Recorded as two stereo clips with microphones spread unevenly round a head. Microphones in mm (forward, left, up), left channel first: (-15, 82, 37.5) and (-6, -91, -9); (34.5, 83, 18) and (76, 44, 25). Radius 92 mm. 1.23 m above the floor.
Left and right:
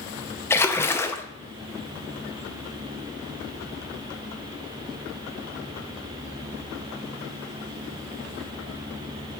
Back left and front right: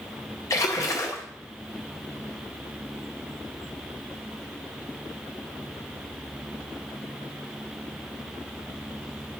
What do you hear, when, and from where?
0.5 s a splash: 175° left, 0.7 m